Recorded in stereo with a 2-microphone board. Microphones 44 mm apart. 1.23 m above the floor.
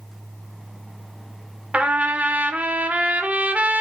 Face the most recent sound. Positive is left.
turn(degrees=-30)  # may be behind; listen again after turning